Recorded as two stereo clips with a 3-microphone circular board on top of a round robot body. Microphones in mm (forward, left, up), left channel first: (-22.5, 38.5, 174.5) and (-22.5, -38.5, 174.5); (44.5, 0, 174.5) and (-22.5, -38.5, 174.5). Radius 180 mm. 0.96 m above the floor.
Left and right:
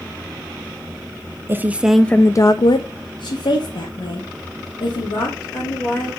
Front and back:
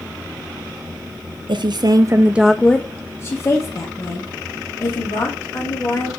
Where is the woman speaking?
150° right, 0.7 m; by 6.1 s 70° left, 3 m.